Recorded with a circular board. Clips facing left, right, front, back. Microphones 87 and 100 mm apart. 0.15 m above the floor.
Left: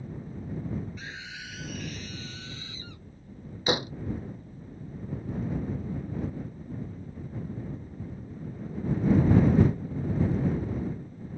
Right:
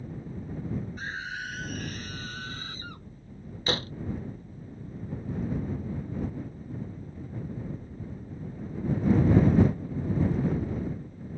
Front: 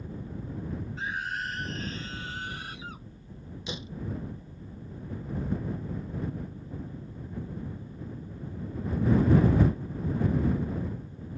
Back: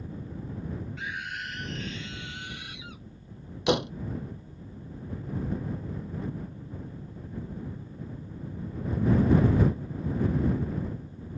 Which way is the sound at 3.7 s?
165° left.